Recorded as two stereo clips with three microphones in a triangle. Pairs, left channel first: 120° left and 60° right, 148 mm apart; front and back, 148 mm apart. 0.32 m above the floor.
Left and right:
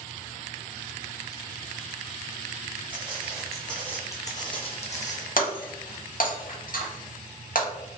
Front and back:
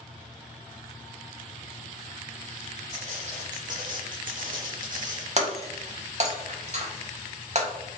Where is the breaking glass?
140° left, 0.6 m.